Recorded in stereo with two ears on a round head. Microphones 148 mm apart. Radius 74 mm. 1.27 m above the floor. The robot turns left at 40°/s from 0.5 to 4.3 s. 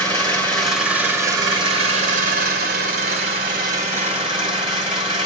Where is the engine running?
10° left, 1.7 m; by 5.3 s 145° right, 1.7 m.